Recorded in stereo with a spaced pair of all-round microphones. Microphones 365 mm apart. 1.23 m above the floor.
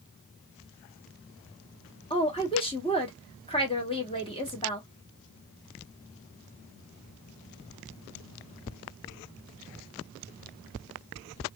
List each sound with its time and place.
2.1 s a woman speaking: 15° left (ahead or behind), 1.2 m